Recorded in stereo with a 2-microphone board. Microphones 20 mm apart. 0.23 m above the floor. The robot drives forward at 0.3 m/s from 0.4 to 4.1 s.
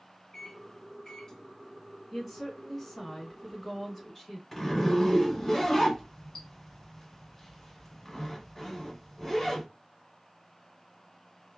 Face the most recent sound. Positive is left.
turn(degrees=10)  # may be behind; listen again after turning